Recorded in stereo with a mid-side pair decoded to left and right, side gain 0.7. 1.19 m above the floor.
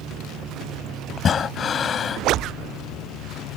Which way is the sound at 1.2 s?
35° left.